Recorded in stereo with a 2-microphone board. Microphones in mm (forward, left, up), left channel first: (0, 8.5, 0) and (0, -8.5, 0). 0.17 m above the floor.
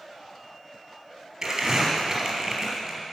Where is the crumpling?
30° right (ahead or behind), 3.5 m.